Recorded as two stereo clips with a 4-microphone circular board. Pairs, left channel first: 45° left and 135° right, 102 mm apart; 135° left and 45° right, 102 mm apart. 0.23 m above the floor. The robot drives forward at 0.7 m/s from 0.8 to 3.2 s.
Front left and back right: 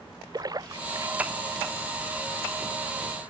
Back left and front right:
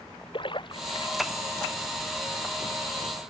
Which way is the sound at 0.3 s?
175° left.